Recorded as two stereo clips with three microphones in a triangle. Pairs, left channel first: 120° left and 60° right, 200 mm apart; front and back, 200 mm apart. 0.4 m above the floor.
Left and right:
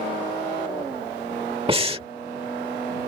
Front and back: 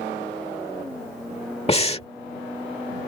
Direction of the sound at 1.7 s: 25° right.